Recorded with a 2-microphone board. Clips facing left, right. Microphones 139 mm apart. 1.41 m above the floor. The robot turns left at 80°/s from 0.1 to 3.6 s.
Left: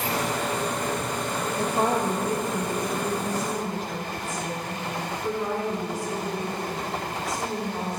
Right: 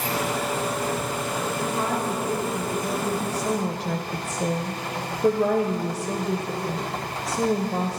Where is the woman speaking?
70° left, 0.6 m; by 8.0 s 90° right, 0.6 m.